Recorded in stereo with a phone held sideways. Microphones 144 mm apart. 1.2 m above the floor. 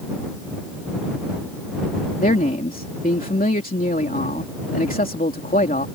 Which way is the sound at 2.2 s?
80° left.